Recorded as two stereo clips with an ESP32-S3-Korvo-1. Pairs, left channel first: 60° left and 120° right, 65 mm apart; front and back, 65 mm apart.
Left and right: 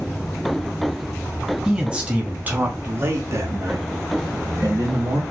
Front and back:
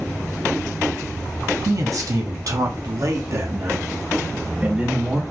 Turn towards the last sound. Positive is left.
turn(degrees=-105)